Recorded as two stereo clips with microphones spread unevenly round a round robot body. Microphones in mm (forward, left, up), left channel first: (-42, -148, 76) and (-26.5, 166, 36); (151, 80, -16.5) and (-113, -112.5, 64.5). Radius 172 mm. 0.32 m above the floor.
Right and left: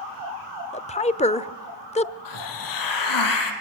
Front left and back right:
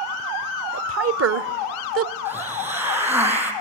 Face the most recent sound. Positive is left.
turn(degrees=-60)